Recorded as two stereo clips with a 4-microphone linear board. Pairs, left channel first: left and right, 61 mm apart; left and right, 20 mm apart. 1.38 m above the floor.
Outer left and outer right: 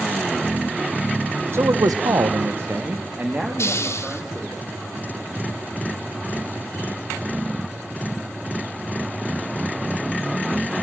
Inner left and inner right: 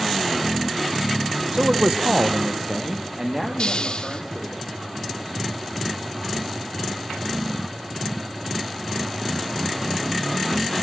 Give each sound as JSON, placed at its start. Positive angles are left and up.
{"t": 1.5, "sound": "a man speaking", "side_deg": -45, "distance_m": 1.0}
{"t": 3.6, "sound": "a hiss", "side_deg": 45, "distance_m": 1.1}